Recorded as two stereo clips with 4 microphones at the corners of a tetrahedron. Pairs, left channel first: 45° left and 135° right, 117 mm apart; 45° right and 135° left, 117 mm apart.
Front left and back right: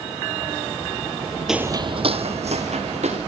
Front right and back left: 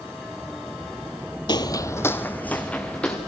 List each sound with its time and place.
1.5 s footsteps: 50° right, 0.6 m; by 3.2 s 125° right, 2.5 m